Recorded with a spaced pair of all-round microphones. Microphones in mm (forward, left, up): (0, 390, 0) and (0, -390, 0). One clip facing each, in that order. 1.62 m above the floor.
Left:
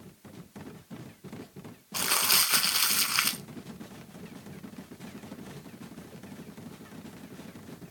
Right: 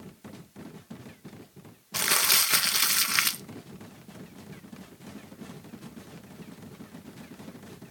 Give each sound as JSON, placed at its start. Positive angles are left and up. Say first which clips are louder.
{"t": 1.9, "sound": "crumpling", "louder": "right 2 dB", "side_deg": -55, "distance_m": 0.6}